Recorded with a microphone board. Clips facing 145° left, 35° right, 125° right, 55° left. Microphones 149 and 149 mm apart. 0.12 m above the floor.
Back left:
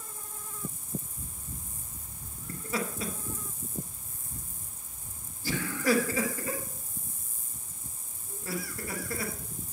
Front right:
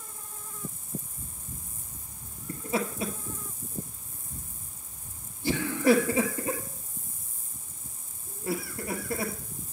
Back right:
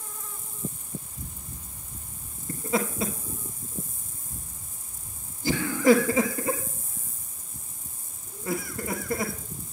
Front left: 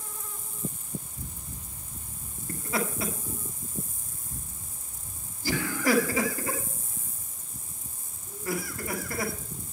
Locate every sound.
2.5 s laughter: 85° right, 1.4 m